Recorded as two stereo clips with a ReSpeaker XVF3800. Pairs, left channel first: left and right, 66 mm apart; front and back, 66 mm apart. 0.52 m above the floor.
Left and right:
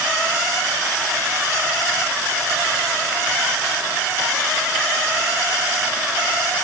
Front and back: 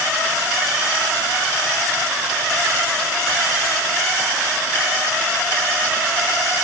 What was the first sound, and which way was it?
Only background noise.